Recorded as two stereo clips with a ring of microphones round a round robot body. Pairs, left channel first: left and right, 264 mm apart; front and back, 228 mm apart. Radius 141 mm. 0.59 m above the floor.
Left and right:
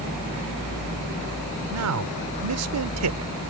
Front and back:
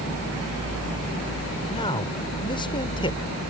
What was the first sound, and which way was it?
A man speaking, 70° right.